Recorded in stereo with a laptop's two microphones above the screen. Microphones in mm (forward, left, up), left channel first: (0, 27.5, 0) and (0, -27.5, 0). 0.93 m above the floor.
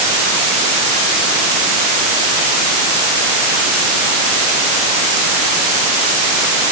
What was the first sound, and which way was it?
Only background noise.